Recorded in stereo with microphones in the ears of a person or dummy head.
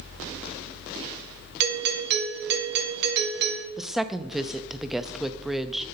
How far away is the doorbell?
About 2 m.